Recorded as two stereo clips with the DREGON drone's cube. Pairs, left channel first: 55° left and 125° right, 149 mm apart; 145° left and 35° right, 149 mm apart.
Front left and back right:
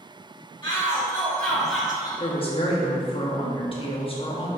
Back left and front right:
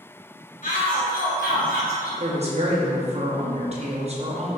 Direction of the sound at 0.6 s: 115° left.